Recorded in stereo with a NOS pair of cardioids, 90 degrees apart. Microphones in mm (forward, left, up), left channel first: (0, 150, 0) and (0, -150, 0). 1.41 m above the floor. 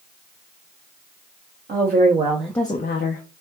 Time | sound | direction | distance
1.7 | a woman speaking | 35° right | 1.3 m